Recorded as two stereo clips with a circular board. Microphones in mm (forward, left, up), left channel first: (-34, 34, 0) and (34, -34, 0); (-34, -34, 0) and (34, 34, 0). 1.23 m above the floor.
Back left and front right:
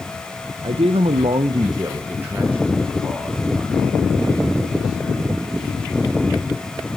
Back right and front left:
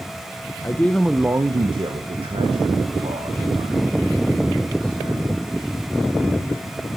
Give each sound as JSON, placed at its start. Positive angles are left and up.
{"t": 0.6, "sound": "a man speaking", "azimuth_deg": -75, "distance_m": 0.7}